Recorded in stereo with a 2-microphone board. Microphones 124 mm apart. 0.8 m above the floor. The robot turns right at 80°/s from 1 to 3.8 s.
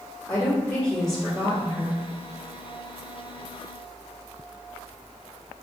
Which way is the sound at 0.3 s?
170° left.